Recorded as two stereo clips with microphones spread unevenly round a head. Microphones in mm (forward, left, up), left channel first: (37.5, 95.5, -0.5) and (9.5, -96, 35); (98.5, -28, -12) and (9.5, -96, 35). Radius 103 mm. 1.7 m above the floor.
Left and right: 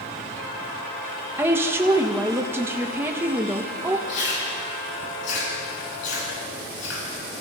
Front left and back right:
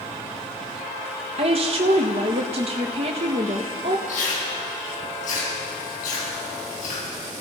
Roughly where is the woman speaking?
Behind.